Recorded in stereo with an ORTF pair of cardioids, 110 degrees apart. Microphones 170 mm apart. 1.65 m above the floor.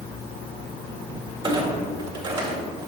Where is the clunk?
30° right, 2 m.